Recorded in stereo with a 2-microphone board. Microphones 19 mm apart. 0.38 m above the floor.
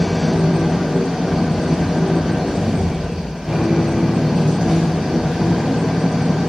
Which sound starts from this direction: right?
An engine running, at 0.0 s.